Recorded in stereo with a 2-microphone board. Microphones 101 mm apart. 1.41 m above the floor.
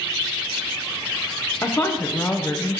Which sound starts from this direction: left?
A woman speaking, at 1.6 s.